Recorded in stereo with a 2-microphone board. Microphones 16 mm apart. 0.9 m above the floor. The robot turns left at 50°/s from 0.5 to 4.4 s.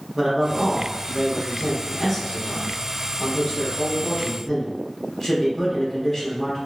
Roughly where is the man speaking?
Right.